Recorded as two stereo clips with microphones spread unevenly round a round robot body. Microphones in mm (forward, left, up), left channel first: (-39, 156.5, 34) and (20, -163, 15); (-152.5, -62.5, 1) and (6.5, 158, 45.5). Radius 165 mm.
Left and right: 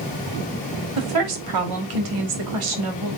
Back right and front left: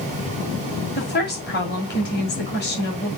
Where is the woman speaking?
70° right, 2.5 m.